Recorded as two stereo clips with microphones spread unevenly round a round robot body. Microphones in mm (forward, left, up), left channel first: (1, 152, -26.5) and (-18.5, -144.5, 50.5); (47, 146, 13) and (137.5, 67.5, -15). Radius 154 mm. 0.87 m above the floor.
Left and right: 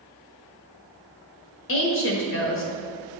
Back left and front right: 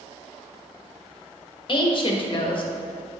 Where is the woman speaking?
95° left, 1.2 m.